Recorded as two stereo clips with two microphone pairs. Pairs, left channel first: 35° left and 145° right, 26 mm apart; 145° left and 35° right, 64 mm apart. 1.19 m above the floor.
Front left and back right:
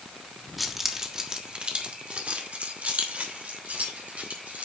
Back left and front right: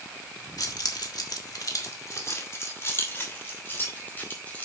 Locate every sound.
0.6 s keys jangling: 130° left, 1.5 m; by 4.7 s 150° right, 4 m